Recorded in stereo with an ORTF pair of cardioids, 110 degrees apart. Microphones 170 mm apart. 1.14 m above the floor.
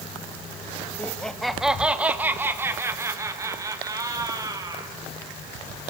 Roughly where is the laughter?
Ahead.